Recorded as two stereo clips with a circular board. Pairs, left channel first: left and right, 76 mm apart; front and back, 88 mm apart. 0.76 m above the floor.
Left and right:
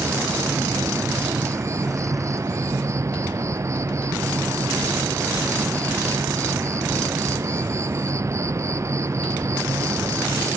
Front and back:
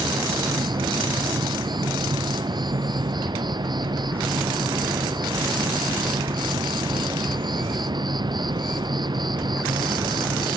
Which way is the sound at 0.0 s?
140° right.